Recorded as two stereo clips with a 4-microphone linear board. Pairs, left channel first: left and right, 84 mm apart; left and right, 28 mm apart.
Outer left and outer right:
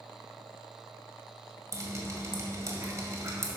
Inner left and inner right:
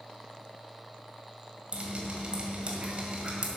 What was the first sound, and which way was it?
Dripping, 40° right (ahead or behind).